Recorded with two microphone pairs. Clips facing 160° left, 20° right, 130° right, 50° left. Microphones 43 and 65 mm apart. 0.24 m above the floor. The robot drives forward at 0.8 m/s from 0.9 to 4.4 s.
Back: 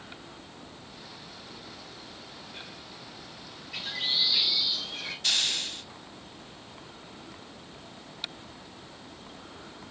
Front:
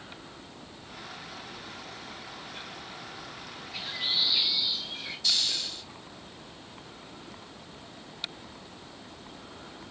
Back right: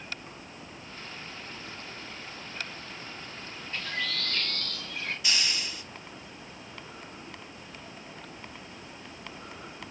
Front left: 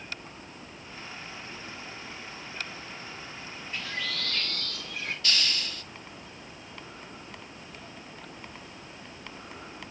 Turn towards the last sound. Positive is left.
turn(degrees=160)